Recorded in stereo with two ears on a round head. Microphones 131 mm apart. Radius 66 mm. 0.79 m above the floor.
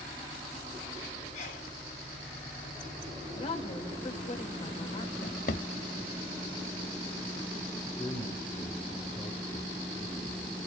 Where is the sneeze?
50° left (ahead or behind), 9.5 m.